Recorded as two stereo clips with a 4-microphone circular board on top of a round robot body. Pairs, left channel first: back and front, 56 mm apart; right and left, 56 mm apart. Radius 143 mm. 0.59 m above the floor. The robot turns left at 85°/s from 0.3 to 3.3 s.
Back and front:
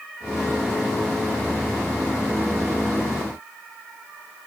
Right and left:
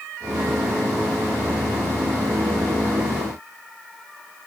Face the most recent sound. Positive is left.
No sound to turn to.